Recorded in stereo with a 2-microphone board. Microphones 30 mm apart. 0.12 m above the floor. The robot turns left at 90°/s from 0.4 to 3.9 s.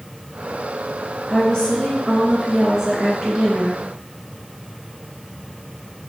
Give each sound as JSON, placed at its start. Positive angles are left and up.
{"t": 1.3, "sound": "a woman speaking", "side_deg": 25, "distance_m": 1.6}